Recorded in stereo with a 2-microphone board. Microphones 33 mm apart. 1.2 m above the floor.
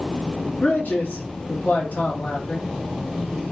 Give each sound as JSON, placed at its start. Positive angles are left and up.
{"t": 0.6, "sound": "a man speaking", "side_deg": 75, "distance_m": 1.7}